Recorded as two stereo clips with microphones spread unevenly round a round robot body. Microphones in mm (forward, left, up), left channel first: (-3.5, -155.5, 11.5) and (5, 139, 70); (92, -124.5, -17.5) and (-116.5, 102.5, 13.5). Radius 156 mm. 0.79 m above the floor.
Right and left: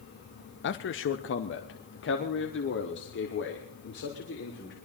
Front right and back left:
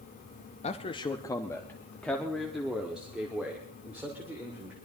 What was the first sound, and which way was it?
A man speaking, 105° right.